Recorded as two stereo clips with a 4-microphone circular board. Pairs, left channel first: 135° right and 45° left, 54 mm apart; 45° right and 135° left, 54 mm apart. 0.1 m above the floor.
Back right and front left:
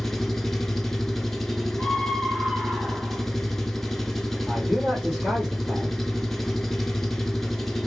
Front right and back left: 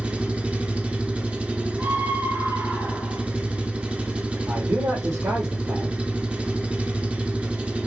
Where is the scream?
140° left, 3 m.